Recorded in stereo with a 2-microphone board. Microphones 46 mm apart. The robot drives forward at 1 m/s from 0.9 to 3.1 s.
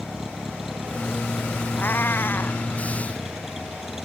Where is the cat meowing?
50° left (ahead or behind); by 2.6 s 55° left (ahead or behind).